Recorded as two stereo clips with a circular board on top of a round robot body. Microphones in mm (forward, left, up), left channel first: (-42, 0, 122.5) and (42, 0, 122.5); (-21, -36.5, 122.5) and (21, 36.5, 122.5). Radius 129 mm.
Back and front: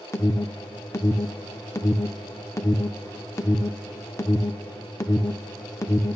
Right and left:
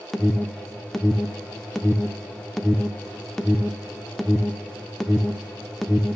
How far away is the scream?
No scream in this recording.